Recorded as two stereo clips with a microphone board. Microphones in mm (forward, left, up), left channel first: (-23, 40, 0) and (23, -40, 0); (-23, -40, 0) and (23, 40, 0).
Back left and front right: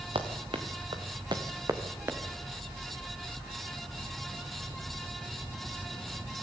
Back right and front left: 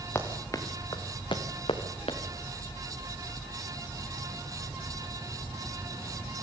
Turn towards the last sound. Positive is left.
turn(degrees=-125)